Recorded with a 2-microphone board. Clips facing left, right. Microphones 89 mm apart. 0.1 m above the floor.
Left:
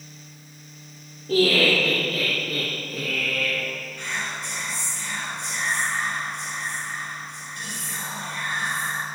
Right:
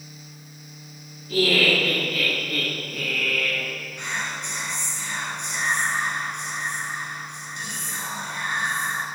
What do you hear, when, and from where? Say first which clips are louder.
1.3 s laughter: left 2 dB; 55° left (ahead or behind), 1.9 m; by 3.7 s centre (ahead or behind), 1.7 m
4.0 s whispering: right 2 dB; 20° right (ahead or behind), 1.1 m